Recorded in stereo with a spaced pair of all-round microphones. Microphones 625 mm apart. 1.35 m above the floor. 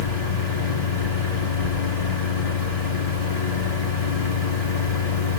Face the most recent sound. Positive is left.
turn(degrees=65)  # may be behind; listen again after turning